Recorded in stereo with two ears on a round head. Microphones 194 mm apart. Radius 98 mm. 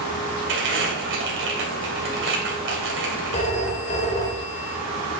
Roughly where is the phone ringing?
Left.